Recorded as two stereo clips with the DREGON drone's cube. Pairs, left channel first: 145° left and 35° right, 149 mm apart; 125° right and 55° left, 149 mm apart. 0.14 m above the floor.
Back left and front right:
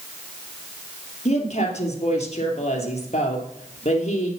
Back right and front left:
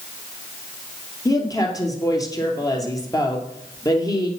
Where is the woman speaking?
175° left, 2.5 m.